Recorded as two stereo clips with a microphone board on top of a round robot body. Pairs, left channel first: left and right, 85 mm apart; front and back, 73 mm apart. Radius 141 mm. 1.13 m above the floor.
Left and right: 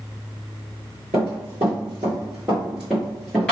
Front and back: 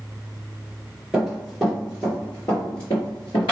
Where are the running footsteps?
105° right, 1.3 m; by 3.5 s 10° left, 1.3 m.